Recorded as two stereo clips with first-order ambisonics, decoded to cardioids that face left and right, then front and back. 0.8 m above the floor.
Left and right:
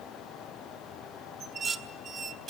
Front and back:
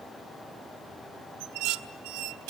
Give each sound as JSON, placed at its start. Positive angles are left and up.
{"t": 1.4, "sound": "dishes clattering", "azimuth_deg": -155, "distance_m": 1.0}